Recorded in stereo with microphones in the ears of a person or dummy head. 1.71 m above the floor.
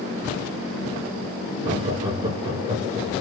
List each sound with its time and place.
1.6 s laughter: 25° right (ahead or behind), 3.5 m